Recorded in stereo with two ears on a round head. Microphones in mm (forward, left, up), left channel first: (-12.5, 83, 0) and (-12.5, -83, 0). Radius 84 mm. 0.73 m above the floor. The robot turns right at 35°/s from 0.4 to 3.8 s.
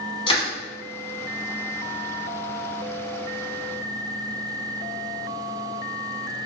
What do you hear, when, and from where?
0.3 s crushing: 30° left (ahead or behind), 1.3 m